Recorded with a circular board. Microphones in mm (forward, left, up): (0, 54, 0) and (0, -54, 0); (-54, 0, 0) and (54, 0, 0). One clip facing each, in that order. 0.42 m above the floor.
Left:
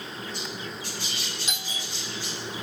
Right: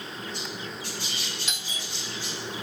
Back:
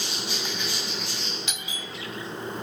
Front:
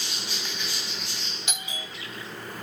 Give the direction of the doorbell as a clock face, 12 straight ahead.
10 o'clock.